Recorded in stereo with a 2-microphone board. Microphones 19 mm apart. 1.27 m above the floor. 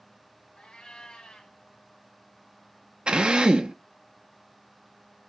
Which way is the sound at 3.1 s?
65° right (ahead or behind).